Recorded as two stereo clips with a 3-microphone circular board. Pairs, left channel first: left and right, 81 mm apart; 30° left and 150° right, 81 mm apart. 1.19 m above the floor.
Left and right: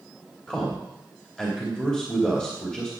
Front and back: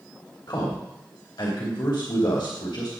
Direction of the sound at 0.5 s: 10° left.